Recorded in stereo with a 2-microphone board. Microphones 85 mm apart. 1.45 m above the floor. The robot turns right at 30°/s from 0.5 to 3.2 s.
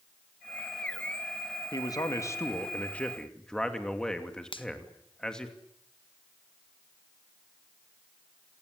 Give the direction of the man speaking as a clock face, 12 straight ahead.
8 o'clock.